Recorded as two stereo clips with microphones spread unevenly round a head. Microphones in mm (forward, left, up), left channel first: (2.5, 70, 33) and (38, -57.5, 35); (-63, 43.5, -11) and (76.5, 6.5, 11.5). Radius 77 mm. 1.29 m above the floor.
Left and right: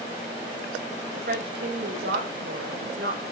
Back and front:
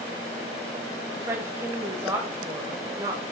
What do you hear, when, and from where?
1.1 s a woman speaking: 90° right, 5.5 m; by 3.2 s 85° right, 4 m